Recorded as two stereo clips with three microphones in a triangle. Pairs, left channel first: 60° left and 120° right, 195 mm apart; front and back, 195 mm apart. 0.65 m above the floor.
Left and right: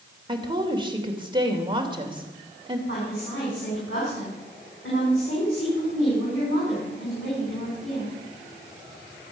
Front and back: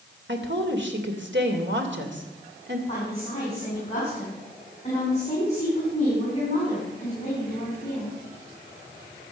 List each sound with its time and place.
0.3 s a woman speaking: 175° left, 3 m
2.9 s a woman speaking: 60° left, 7 m